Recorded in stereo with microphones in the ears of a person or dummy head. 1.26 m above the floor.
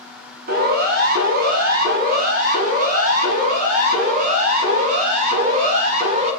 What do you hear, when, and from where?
0.5 s a siren: 60° right (ahead or behind), 8.5 m; by 6.3 s 45° right (ahead or behind), 11.5 m